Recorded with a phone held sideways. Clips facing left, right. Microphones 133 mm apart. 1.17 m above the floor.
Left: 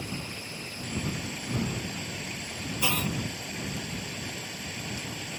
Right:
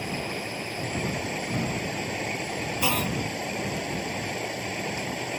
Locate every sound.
0.0 s running water: 65° right (ahead or behind)
2.8 s a clunk: 35° right (ahead or behind)